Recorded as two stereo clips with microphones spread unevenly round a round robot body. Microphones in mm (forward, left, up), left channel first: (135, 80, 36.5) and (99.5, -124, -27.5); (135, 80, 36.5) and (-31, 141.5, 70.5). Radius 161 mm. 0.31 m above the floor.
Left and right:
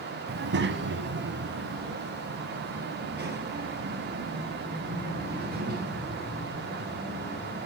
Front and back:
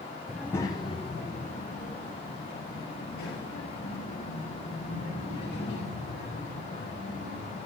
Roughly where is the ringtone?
I don't hear a ringtone.